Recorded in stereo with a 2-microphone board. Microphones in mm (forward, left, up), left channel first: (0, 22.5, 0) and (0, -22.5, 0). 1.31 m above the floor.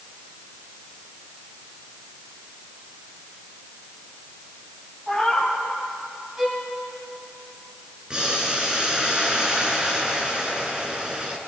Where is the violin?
15° right (ahead or behind), 6 m.